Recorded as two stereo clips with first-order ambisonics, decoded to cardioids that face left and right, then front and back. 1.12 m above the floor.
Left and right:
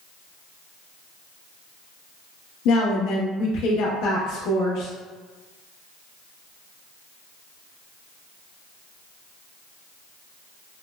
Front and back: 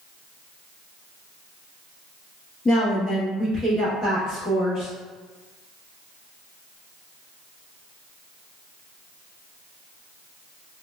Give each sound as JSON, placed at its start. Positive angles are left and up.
{"t": 2.6, "sound": "a woman speaking", "azimuth_deg": 70, "distance_m": 1.0}